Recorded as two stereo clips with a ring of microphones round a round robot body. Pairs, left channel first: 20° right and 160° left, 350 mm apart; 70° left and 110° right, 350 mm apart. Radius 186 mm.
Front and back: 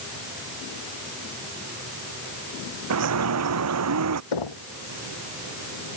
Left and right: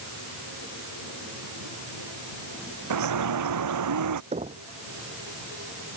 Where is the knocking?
40° right.